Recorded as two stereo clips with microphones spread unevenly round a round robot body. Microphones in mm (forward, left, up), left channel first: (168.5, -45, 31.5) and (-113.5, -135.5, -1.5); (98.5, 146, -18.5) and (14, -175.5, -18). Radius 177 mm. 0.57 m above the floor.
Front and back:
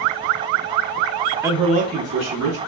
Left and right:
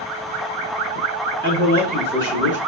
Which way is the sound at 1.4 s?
95° right.